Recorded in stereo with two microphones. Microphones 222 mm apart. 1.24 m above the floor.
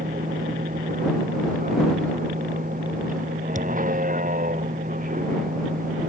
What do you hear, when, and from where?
0.0 s a vehicle: 40° right (ahead or behind)
3.5 s a thud: 35° right (ahead or behind)